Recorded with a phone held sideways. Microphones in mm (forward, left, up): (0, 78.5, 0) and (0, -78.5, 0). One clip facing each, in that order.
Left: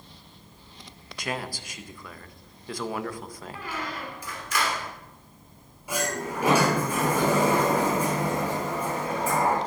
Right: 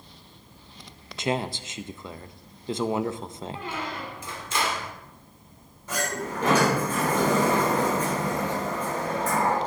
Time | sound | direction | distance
1.2 | a man speaking | 25° right (ahead or behind) | 0.5 m
3.5 | a squeak | 25° right (ahead or behind) | 1.7 m
5.9 | a sliding door | 10° left (ahead or behind) | 3.5 m